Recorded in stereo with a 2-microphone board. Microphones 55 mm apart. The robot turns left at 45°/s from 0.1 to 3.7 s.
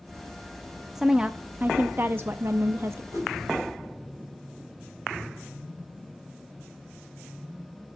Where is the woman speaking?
10° right, 0.6 m; by 3.0 s 100° right, 0.6 m.